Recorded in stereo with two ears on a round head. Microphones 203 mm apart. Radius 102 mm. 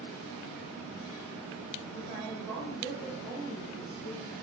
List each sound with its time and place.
1.9 s a woman speaking: 5° left (ahead or behind), 1.1 m; by 4.3 s 5° right (ahead or behind), 1.0 m